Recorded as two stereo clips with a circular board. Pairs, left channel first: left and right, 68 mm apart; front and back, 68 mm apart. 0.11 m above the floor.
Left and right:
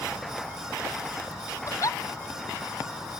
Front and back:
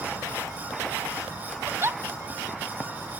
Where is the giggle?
125° left.